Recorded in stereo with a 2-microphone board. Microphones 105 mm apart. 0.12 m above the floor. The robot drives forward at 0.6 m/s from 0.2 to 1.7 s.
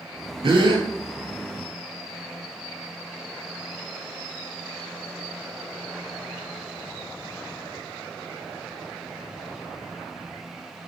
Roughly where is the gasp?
Right.